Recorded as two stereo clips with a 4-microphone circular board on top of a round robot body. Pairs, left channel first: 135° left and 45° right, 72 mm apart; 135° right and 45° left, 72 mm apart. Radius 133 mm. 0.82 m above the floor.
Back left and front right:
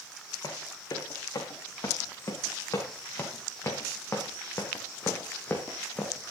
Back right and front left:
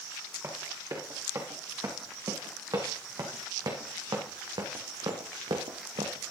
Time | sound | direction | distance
0.4 | running footsteps | 95° left | 4.5 m